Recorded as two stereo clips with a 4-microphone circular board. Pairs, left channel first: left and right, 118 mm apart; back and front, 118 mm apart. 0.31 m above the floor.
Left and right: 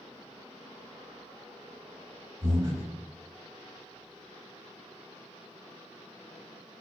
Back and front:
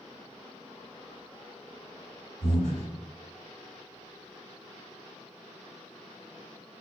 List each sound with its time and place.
2.4 s breathing: 150° right, 1.1 m